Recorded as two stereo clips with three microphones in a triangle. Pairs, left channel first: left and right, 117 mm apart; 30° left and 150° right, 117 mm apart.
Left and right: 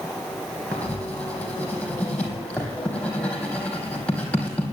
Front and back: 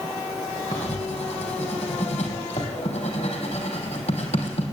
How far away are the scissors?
I don't hear scissors.